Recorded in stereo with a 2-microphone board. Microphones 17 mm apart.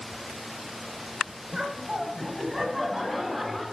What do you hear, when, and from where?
1.5 s laughter: 30° right (ahead or behind), 3.5 m; by 3.6 s 5° left (ahead or behind), 5.5 m